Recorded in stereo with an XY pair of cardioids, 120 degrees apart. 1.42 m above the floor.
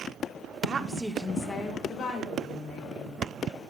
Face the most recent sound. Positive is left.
turn(degrees=65)